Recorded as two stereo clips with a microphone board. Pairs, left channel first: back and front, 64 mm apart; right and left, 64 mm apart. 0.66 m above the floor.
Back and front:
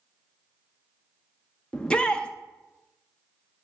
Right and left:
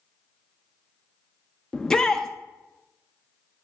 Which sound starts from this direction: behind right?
A shout, at 1.7 s.